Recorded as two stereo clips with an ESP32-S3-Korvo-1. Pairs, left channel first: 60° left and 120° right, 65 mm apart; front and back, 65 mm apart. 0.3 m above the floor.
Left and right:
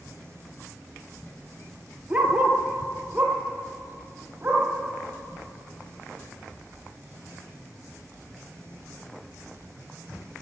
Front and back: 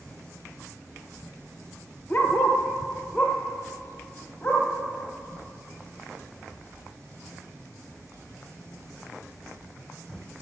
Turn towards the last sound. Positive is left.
turn(degrees=-50)